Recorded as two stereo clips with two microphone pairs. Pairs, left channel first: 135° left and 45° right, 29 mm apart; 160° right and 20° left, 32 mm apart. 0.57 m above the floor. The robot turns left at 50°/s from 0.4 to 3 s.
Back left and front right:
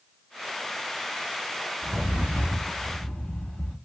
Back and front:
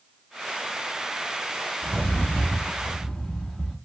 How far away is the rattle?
About 1.1 m.